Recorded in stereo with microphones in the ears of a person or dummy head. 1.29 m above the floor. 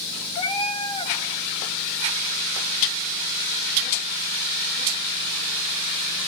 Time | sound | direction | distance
0.3 | a cat meowing | 40° left (ahead or behind) | 1.7 m